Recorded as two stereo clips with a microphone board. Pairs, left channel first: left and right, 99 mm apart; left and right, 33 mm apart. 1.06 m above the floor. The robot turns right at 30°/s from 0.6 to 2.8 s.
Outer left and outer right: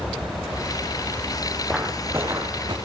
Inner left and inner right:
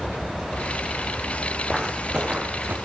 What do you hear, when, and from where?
1.7 s footsteps: 5° right (ahead or behind), 3 m; by 2.8 s 45° right (ahead or behind), 3.5 m